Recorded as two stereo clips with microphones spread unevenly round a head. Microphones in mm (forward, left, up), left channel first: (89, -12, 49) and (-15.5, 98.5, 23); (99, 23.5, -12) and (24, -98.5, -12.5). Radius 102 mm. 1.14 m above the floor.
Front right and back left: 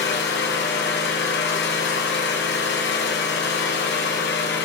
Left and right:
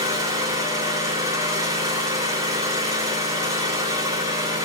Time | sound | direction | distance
0.0 | an engine running | 55° right | 9 m